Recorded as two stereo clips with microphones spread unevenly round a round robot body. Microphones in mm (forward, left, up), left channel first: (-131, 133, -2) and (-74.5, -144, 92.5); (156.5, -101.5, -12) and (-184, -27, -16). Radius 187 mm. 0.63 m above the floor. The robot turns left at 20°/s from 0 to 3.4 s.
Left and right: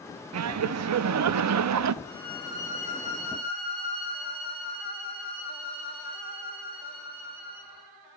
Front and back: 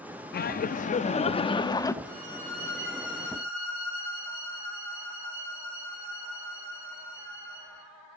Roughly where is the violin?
Ahead left.